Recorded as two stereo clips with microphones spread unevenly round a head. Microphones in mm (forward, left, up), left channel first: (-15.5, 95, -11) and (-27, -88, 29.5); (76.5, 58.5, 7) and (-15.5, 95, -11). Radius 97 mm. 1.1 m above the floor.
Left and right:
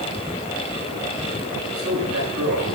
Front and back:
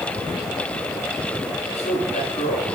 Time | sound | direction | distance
1.7 | a man speaking | 75° right | 8.5 m